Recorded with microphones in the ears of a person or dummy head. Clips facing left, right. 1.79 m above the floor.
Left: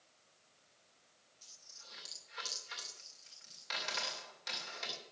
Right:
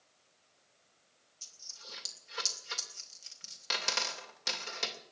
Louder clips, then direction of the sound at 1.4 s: Right 8 dB; 55° right (ahead or behind).